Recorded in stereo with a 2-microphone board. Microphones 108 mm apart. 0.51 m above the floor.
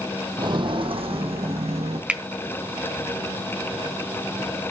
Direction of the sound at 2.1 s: 10° right (ahead or behind).